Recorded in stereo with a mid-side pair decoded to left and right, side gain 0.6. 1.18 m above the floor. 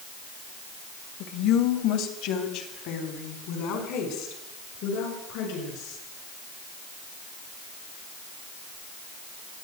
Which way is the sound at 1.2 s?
70° left.